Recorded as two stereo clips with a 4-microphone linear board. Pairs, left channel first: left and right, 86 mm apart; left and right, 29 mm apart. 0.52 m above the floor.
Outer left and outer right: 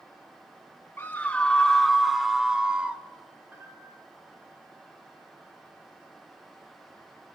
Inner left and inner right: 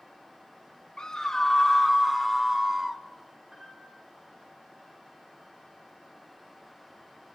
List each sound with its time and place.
1.0 s a scream: 30° left (ahead or behind), 1.0 m; by 3.0 s 15° right (ahead or behind), 1.8 m
3.5 s a piano: 25° right (ahead or behind), 8 m